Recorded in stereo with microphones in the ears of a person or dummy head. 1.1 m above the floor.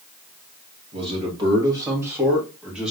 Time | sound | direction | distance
0.9 | a man speaking | 30° right (ahead or behind) | 1.6 m